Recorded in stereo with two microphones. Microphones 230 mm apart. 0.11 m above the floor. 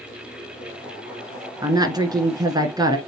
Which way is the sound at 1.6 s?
15° right (ahead or behind).